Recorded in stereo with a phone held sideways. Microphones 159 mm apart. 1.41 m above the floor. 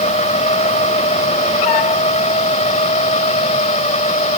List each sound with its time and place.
0.0 s a machine running: 45° left (ahead or behind)